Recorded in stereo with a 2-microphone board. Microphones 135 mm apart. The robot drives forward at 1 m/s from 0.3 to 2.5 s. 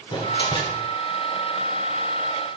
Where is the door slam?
35° left (ahead or behind), 3 m; by 0.9 s 45° left (ahead or behind), 2.5 m.